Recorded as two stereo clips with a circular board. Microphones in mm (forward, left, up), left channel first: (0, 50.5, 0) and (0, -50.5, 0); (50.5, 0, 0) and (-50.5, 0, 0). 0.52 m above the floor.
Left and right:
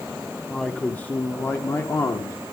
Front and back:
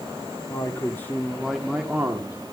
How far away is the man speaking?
About 1.4 m.